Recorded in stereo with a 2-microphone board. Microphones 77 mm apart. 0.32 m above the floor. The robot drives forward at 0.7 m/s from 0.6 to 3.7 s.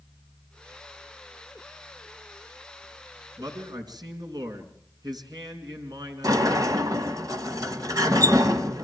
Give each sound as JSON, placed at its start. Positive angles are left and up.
{"t": 3.4, "sound": "a man speaking", "side_deg": -65, "distance_m": 4.0}
{"t": 6.2, "sound": "a sliding door", "side_deg": -55, "distance_m": 2.0}